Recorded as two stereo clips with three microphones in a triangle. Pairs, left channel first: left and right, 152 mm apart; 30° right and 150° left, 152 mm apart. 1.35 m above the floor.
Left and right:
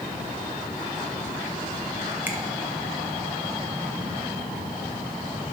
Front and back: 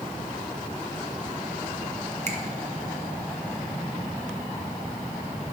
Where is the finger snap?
170° right, 0.9 m.